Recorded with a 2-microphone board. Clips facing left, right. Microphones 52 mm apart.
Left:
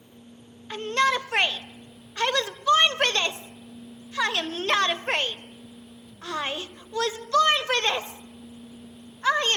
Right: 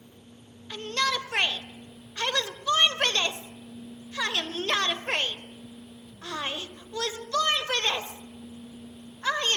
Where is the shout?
25° left (ahead or behind), 1.2 m.